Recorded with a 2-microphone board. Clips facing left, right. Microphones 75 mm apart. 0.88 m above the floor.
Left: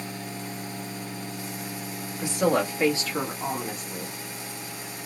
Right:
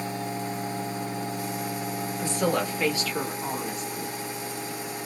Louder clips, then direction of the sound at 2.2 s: Left 3 dB; 15° left (ahead or behind).